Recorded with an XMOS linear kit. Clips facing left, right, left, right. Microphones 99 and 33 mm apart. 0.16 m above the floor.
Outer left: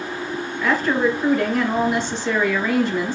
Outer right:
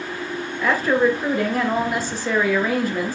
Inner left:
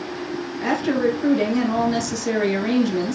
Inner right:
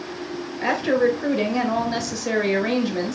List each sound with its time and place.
0.6 s a woman speaking: 10° right (ahead or behind), 1.9 m